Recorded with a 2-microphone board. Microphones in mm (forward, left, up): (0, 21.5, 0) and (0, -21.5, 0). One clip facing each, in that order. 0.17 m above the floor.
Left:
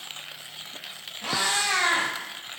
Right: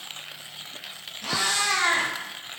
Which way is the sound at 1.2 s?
30° left (ahead or behind).